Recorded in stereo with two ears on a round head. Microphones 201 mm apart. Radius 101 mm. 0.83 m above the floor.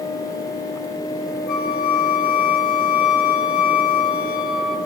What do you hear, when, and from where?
1.5 s a flute: 40° left (ahead or behind), 3 m